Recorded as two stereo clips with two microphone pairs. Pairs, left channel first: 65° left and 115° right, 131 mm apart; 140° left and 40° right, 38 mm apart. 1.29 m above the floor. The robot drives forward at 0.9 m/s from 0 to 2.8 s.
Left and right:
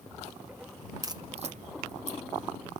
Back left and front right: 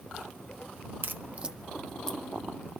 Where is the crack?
60° right, 0.6 m; by 2.2 s 150° right, 0.9 m.